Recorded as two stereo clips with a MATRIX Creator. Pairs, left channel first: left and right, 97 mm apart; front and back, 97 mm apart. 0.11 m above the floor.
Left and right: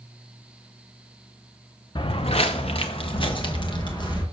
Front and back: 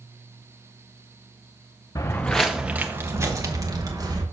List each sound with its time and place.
1.9 s footsteps: 50° left, 0.6 m; by 4.2 s 135° left, 2.0 m